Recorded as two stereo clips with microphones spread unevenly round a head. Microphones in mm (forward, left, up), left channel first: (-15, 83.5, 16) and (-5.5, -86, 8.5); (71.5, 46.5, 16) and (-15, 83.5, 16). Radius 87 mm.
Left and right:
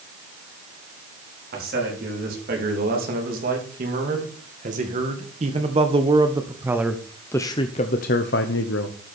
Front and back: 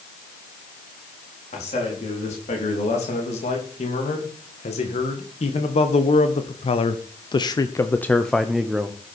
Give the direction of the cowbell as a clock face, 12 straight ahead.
No cowbell in this recording.